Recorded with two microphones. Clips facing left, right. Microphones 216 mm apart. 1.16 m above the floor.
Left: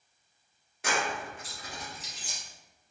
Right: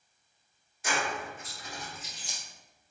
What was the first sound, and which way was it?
Keys jangling, 70° left (ahead or behind).